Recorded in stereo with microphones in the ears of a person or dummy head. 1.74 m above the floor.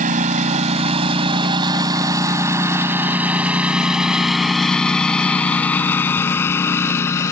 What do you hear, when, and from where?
0.0 s a lawn mower: 40° right (ahead or behind); by 7.3 s 20° left (ahead or behind)